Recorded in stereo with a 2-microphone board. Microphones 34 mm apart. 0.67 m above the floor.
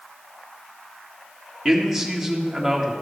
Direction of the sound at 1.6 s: 10° right (ahead or behind).